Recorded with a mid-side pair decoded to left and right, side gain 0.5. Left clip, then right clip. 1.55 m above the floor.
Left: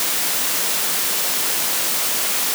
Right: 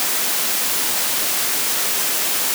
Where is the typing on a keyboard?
No typing on a keyboard in this recording.